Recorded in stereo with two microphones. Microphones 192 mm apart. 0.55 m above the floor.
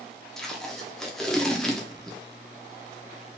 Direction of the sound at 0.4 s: Centre (ahead or behind).